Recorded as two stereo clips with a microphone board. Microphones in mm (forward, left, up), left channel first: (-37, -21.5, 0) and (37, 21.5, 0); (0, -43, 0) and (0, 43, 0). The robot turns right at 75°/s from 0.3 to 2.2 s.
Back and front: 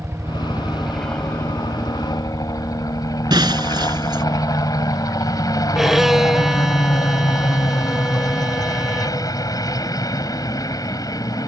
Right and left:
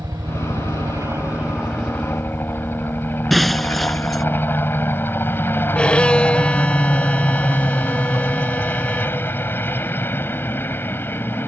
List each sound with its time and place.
0.0 s a helicopter: 75° left; by 11.5 s 145° right
3.3 s breaking glass: straight ahead
5.8 s a violin: 45° right